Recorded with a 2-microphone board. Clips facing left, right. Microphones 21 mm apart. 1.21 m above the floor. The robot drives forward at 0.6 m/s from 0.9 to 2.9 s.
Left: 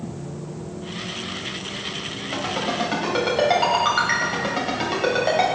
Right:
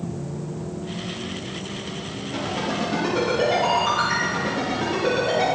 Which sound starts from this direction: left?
A ringtone, at 2.3 s.